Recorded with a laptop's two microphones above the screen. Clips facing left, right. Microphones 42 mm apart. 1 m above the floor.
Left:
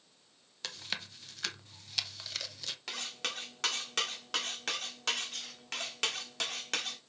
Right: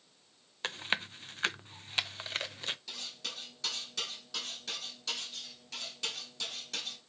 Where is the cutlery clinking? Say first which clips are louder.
Left 4 dB; 70° left (ahead or behind), 1.5 m.